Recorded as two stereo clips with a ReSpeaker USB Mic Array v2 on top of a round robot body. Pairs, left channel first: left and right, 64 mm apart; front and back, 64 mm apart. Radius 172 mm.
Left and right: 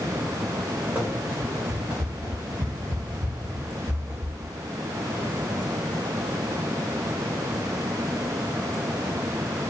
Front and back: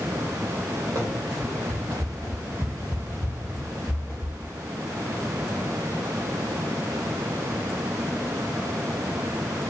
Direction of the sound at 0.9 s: 150° right.